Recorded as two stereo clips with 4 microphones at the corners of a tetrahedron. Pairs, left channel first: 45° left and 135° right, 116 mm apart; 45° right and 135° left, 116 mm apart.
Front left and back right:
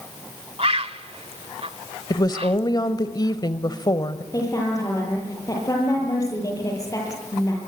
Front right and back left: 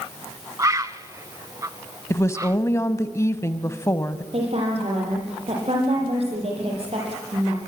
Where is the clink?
I don't hear a clink.